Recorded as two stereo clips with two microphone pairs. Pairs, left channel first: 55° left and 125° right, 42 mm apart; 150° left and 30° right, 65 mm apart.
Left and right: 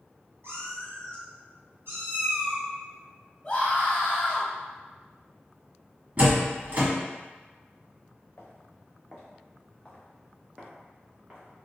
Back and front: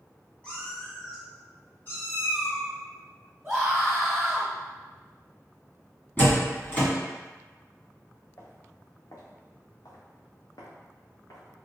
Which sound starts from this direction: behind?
A door slam, at 6.2 s.